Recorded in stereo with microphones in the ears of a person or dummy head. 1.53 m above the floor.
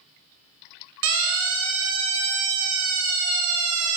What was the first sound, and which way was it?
A siren, 70° right (ahead or behind).